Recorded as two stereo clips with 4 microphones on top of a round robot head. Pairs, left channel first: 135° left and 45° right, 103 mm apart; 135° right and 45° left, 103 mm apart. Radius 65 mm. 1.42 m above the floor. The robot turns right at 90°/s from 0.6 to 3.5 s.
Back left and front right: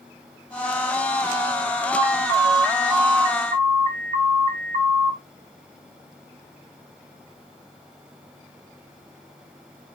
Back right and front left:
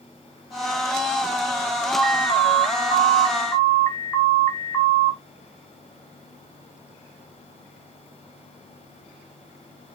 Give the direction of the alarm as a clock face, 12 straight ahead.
7 o'clock.